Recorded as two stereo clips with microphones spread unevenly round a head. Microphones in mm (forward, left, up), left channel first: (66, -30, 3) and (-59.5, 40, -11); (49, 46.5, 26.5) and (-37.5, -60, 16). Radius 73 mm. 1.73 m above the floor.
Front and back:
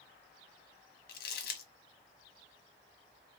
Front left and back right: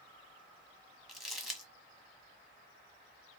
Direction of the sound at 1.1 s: 40° right.